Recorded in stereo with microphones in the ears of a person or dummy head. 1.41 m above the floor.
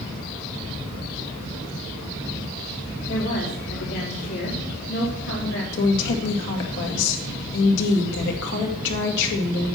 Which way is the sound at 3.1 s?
75° left (ahead or behind).